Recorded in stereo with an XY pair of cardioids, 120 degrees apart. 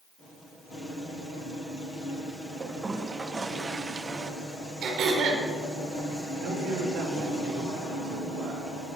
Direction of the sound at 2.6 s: 25° right.